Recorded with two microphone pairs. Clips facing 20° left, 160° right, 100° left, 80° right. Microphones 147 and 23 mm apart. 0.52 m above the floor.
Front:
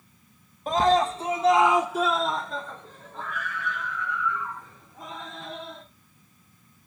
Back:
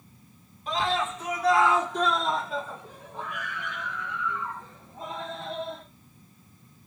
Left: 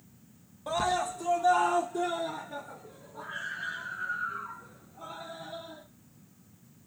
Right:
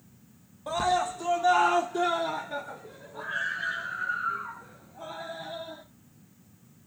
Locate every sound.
0.7 s a scream: 5° left, 0.9 m; by 5.8 s 100° right, 3 m